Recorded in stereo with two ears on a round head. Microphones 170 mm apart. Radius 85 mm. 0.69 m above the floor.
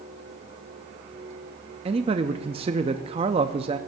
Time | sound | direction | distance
1.9 | a man speaking | 30° right (ahead or behind) | 0.5 m